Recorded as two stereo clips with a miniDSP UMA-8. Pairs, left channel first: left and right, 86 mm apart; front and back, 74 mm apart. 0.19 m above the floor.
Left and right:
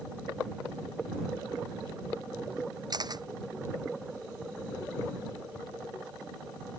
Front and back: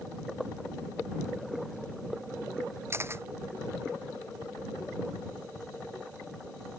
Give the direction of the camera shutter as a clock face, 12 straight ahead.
4 o'clock.